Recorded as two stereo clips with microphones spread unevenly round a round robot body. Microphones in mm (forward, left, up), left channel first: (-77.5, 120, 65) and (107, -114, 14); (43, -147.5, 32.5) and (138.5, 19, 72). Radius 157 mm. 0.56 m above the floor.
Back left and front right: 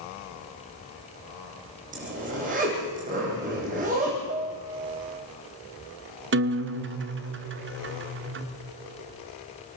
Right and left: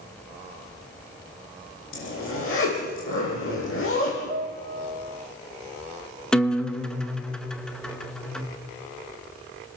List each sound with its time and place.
1.9 s a zipper: 120° right, 7 m
4.3 s a piano: 15° left, 1.1 m
6.3 s a guitar: 45° right, 1.5 m